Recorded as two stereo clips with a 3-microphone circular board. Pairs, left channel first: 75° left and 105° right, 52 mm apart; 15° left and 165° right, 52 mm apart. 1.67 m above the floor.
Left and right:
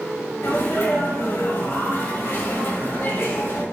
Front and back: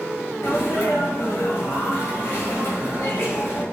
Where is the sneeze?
45° left, 2.5 m.